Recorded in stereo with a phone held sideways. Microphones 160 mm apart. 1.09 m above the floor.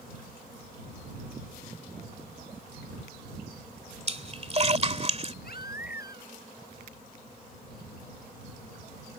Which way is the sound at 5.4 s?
75° left (ahead or behind).